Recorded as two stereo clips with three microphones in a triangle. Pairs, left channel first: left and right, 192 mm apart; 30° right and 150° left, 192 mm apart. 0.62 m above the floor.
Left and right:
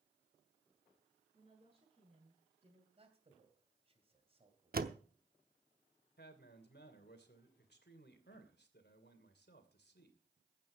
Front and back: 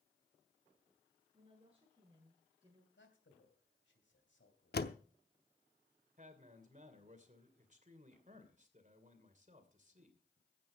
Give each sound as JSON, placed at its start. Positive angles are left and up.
{"t": 1.3, "sound": "a woman speaking", "azimuth_deg": -145, "distance_m": 9.0}
{"t": 3.0, "sound": "a man speaking", "azimuth_deg": -30, "distance_m": 3.0}
{"t": 4.7, "sound": "a door slam", "azimuth_deg": -55, "distance_m": 0.8}
{"t": 6.2, "sound": "a man speaking", "azimuth_deg": 105, "distance_m": 2.5}